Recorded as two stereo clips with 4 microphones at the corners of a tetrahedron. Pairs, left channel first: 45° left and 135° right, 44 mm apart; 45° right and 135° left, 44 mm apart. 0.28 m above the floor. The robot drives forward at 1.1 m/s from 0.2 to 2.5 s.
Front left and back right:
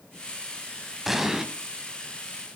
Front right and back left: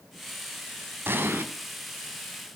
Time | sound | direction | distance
1.1 | an explosion | 140° left | 1.6 m